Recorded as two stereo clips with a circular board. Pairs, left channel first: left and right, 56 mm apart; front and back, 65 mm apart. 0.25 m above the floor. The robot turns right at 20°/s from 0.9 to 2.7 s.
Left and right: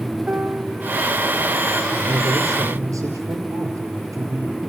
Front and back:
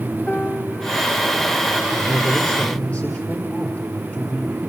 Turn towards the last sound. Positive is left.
turn(degrees=-70)